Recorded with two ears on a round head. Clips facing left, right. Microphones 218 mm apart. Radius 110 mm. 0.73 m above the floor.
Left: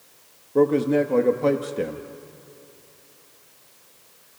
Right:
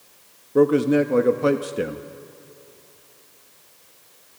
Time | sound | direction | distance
0.6 | a man speaking | 15° right (ahead or behind) | 0.9 m